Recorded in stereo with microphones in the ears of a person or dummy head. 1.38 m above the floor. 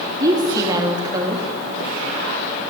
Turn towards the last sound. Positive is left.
turn(degrees=-20)  # may be behind; listen again after turning